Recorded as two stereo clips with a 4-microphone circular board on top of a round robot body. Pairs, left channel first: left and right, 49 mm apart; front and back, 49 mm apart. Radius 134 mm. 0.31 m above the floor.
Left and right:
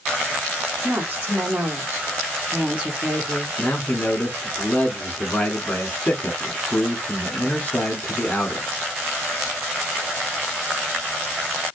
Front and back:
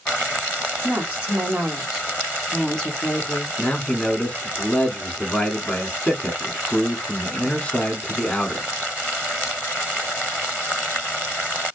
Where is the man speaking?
55° left, 1.2 m.